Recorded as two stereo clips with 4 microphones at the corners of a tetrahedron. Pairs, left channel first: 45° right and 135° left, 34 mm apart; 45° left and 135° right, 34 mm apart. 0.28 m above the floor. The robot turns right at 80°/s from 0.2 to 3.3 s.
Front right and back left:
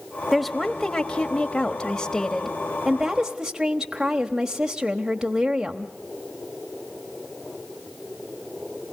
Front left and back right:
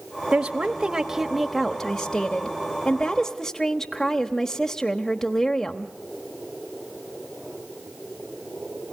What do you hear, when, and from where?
0.3 s a woman speaking: 145° right, 1.1 m; by 5.9 s 90° left, 1.1 m